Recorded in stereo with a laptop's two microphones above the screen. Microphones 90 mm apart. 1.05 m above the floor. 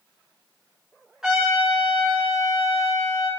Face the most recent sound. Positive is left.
turn(degrees=-5)  # may be behind; listen again after turning